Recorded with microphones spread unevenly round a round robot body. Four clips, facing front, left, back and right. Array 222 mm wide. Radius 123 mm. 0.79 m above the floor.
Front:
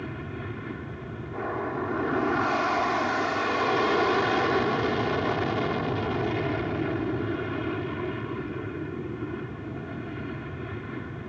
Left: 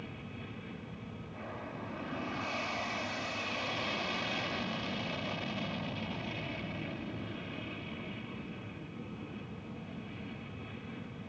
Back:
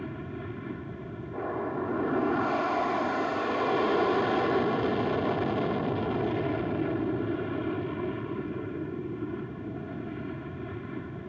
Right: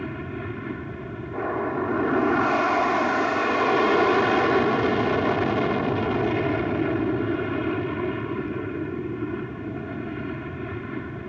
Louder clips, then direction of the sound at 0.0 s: Right 14 dB, front 1 dB; 75° right.